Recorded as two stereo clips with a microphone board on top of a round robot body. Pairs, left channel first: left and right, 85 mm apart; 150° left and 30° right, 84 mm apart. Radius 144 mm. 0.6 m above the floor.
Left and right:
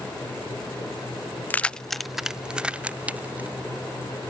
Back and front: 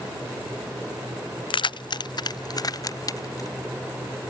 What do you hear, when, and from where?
1.5 s keys jangling: 160° left; by 3.6 s 160° right